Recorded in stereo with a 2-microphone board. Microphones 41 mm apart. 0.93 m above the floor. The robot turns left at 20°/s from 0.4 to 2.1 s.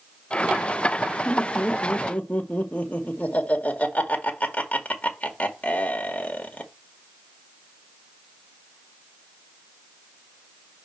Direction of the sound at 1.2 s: 20° left (ahead or behind).